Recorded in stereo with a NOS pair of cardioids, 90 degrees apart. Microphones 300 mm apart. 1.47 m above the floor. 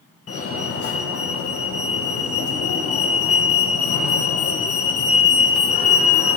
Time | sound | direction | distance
0.3 | a fire alarm | 50° left | 2 m